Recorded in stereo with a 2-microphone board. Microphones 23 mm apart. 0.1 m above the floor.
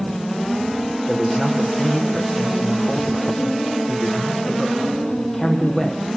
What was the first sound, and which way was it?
A man speaking, 20° left (ahead or behind).